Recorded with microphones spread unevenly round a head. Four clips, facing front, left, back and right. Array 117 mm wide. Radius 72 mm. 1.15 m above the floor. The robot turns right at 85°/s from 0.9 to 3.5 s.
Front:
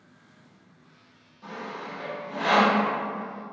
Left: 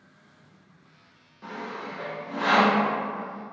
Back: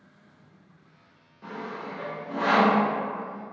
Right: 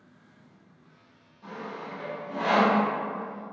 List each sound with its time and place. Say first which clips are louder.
1.4 s sawing: left 2 dB, back 1 dB; 110° left, 0.8 m; by 2.8 s 135° right, 0.8 m